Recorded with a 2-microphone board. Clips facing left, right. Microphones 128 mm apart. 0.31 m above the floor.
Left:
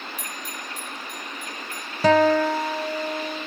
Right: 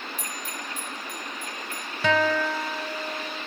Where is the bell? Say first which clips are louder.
Even; 80° left, 2.5 m.